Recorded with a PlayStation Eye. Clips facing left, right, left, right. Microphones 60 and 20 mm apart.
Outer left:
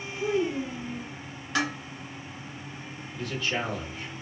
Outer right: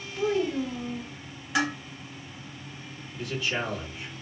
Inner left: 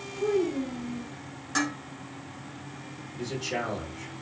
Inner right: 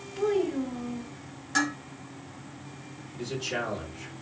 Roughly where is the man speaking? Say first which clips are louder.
Even, even; centre.